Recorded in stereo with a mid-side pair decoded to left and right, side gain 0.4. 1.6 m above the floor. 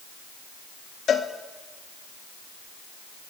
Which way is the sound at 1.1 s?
55° left.